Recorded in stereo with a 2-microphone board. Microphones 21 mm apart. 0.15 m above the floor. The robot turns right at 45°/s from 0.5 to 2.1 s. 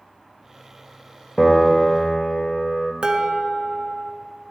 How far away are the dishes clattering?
About 1.3 m.